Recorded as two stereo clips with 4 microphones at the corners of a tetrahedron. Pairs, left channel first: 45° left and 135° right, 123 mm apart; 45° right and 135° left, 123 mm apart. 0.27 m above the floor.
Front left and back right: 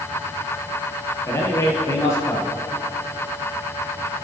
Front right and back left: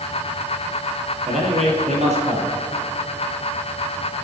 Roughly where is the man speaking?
Left.